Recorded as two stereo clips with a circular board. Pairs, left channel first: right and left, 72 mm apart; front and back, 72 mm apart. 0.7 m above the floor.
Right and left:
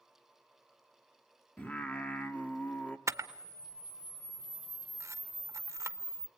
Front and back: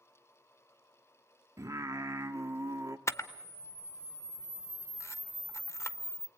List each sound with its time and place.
1.6 s singing: 155° right, 1.2 m
3.1 s a camera shutter: 45° left, 0.9 m